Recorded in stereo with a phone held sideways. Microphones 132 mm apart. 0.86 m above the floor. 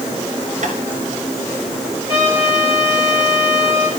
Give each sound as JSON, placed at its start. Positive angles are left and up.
{"t": 0.6, "sound": "tapping", "side_deg": -70, "distance_m": 2.5}
{"t": 2.1, "sound": "a trumpet", "side_deg": 40, "distance_m": 8.0}